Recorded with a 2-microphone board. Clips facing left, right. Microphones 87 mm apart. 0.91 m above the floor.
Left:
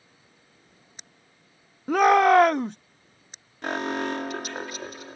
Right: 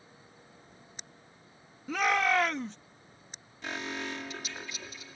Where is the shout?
55° left (ahead or behind).